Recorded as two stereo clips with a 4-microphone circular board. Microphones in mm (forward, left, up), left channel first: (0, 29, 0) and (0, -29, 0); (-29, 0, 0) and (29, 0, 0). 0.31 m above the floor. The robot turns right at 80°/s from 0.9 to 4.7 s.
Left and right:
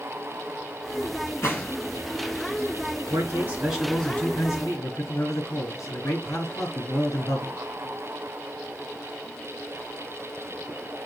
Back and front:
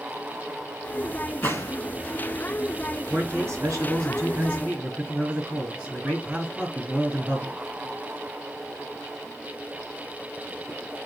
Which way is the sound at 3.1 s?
65° right.